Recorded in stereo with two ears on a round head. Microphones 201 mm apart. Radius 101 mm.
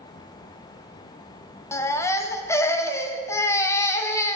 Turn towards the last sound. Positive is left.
turn(degrees=15)  # may be behind; listen again after turning